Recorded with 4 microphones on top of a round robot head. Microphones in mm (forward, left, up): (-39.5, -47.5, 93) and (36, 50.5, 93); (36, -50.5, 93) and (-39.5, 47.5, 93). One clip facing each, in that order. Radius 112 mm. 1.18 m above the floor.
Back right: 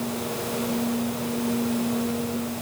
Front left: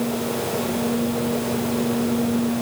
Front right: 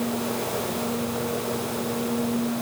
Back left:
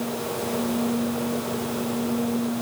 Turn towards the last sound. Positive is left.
No sound to turn to.